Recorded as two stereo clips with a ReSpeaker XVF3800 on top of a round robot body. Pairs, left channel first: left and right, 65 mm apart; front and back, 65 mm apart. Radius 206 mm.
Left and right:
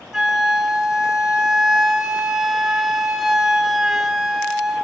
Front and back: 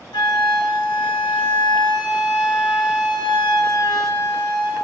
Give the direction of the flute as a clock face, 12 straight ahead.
12 o'clock.